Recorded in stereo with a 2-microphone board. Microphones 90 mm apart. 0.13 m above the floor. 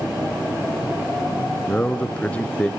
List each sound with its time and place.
1.7 s a man speaking: 15° left (ahead or behind), 1.3 m